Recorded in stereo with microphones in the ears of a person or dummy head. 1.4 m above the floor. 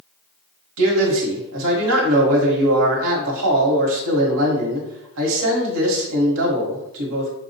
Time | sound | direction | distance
0.8 | a man speaking | 75° right (ahead or behind) | 1.3 m